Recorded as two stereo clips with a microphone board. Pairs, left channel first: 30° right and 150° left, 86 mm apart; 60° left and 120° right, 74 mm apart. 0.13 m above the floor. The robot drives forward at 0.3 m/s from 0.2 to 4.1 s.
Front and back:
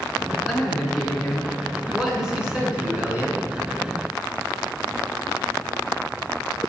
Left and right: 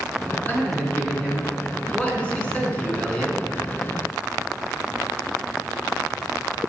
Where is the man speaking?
45° left, 1.8 m; by 3.4 s 120° left, 1.8 m.